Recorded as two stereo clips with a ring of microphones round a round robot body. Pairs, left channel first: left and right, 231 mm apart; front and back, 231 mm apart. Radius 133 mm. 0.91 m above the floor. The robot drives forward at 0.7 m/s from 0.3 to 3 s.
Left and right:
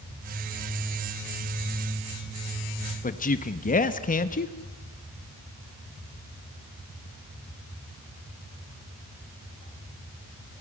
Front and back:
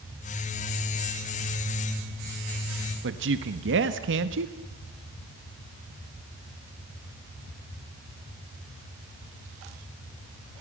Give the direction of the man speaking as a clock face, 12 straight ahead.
7 o'clock.